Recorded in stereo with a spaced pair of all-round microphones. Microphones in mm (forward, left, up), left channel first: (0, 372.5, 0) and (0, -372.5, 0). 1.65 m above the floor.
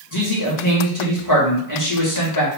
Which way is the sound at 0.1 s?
25° left (ahead or behind).